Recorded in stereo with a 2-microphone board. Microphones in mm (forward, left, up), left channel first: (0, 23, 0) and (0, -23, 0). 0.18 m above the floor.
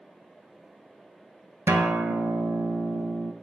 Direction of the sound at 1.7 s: 70° right (ahead or behind).